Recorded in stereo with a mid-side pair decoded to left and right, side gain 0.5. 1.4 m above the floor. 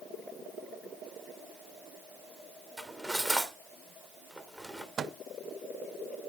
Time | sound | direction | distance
2.8 | cutlery clinking | 10° right | 3 m
5.0 | a microwave | 45° right | 0.5 m